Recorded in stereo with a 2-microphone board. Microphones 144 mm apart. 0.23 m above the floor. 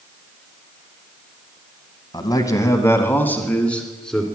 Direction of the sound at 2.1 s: 30° left (ahead or behind).